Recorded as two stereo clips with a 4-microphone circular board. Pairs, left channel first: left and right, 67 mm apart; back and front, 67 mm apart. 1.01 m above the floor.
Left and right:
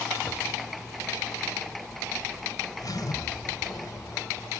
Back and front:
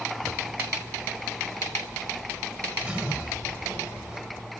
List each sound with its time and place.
0.2 s a zipper: 65° left, 1.8 m